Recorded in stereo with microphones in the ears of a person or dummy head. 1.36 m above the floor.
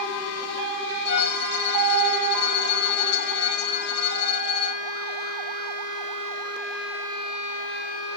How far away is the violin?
About 0.7 m.